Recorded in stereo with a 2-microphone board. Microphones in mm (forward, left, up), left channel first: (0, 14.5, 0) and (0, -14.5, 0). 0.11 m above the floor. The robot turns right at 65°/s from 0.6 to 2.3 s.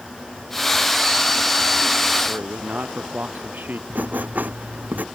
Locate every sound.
2.3 s a man speaking: 80° right
3.9 s writing: 70° right (ahead or behind)